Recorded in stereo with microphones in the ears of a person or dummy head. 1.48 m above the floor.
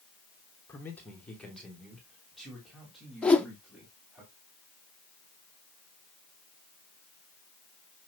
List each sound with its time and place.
0.7 s a man speaking: 15° left (ahead or behind), 1.1 m; by 4.2 s 5° right (ahead or behind), 3.5 m
3.2 s a whoosh: 5° left (ahead or behind), 0.7 m